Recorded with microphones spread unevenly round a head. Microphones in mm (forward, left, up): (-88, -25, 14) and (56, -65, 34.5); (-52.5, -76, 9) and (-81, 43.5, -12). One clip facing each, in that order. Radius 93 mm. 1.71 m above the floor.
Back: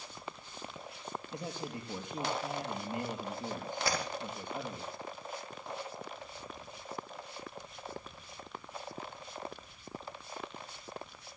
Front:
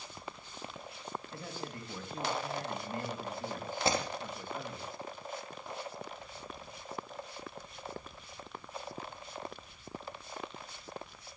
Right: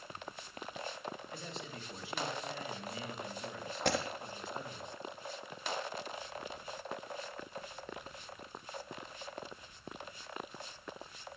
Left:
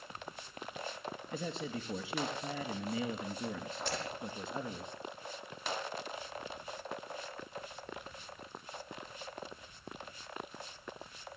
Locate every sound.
1.3 s a man speaking: 85° left, 3 m
3.9 s breaking glass: 75° right, 4 m